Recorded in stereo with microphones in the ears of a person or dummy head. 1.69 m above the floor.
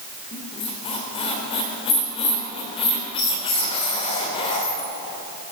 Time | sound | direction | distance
0.3 | a squeak | 25° left (ahead or behind) | 2 m